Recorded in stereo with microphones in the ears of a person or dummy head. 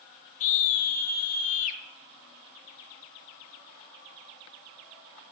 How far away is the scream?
About 0.8 m.